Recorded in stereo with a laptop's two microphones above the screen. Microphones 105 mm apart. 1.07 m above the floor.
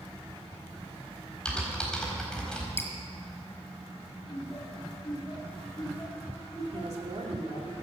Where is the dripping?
20° left (ahead or behind), 2 m.